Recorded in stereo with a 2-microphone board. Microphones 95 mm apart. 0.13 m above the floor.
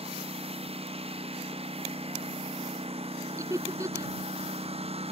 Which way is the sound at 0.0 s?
75° right (ahead or behind).